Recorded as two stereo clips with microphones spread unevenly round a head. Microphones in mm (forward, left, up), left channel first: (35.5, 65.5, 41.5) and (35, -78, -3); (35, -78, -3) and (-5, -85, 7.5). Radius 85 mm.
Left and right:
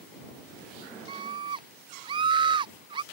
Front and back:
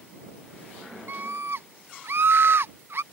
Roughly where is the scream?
Behind right.